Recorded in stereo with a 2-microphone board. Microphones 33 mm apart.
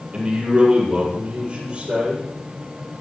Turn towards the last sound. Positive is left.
turn(degrees=-40)  # may be behind; listen again after turning